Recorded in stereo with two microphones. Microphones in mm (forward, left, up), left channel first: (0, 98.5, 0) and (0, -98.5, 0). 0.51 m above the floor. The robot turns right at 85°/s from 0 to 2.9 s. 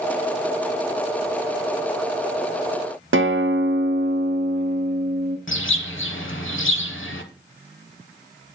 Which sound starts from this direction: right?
A guitar, at 3.1 s.